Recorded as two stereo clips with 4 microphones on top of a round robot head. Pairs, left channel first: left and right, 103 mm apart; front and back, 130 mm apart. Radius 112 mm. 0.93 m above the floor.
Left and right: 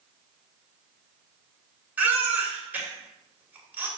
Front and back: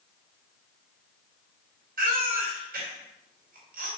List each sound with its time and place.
2.0 s a baby crying: 165° right, 3.5 m